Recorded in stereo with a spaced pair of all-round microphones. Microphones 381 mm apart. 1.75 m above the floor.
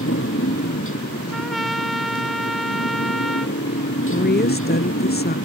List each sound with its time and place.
0.0 s a motorcycle: 35° left (ahead or behind)
1.3 s a trumpet: centre (ahead or behind)
4.1 s a woman speaking: 25° left (ahead or behind)